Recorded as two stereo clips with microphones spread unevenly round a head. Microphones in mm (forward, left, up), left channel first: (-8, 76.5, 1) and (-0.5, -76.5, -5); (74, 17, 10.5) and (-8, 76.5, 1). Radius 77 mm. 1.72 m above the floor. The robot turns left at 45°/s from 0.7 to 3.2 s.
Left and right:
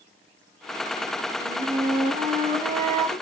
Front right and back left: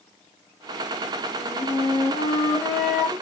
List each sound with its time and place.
1.4 s a flute: 50° right, 1.4 m; by 3.1 s 125° right, 1.4 m